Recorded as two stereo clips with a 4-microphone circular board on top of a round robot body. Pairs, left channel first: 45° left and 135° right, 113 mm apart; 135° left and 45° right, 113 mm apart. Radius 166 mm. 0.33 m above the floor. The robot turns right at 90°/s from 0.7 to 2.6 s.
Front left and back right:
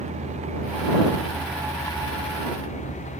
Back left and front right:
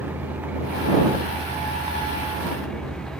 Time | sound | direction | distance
0.0 | a vehicle | 120° right | ?